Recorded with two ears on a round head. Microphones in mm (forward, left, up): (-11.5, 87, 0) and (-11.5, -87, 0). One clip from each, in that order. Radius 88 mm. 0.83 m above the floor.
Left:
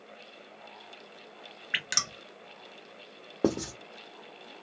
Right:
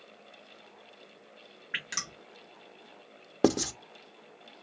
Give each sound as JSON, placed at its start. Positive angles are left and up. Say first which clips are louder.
{"t": 1.7, "sound": "dripping", "louder": "left 5 dB", "side_deg": 30, "distance_m": 0.8}
{"t": 3.4, "sound": "writing", "louder": "right 3 dB", "side_deg": -80, "distance_m": 0.6}